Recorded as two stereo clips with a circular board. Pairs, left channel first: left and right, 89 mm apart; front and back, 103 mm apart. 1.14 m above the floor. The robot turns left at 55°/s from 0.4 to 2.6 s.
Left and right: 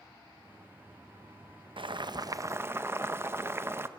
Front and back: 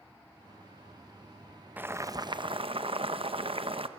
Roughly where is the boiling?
Right.